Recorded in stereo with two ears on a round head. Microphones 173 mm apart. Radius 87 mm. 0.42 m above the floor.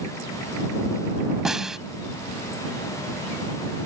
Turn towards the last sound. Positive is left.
turn(degrees=0)  # may be behind; listen again after turning